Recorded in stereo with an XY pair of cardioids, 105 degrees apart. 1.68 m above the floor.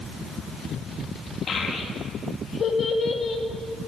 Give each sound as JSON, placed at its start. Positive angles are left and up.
{"t": 1.5, "sound": "a child speaking", "azimuth_deg": 50, "distance_m": 2.0}